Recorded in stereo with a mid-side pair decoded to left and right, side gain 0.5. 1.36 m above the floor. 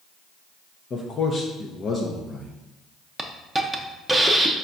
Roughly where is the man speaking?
Ahead left.